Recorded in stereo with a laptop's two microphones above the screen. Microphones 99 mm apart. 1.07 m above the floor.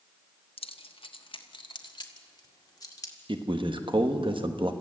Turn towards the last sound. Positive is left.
turn(degrees=-55)  # may be behind; listen again after turning